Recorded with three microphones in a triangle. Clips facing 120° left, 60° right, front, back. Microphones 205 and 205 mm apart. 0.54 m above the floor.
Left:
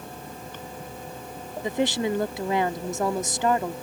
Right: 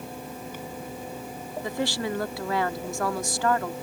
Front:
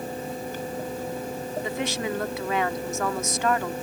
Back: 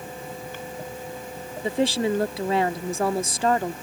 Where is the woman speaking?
170° left.